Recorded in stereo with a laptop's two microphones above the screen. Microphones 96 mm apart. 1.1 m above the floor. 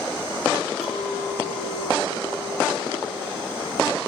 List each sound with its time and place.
0.8 s a clink: 80° left, 5 m